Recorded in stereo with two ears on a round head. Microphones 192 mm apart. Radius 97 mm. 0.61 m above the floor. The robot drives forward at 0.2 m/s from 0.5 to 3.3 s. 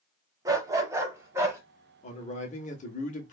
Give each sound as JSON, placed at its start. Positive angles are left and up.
{"t": 0.5, "sound": "a dog barking", "side_deg": -15, "distance_m": 0.7}
{"t": 2.0, "sound": "a man speaking", "side_deg": 35, "distance_m": 0.8}